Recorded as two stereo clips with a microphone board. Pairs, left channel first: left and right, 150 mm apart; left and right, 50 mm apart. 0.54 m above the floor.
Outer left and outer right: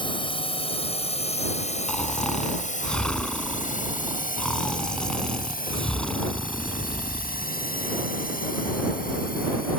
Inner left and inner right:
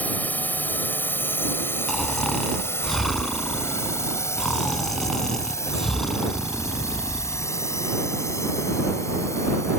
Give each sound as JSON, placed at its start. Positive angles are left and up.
{"t": 0.0, "sound": "a drone", "side_deg": 35}
{"t": 1.9, "sound": "snoring", "side_deg": 5}